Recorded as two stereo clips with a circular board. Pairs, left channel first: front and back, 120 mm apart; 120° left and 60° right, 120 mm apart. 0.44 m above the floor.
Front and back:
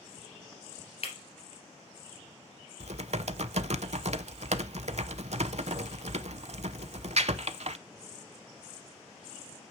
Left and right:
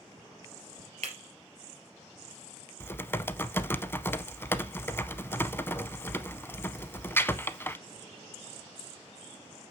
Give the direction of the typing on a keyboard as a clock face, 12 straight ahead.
6 o'clock.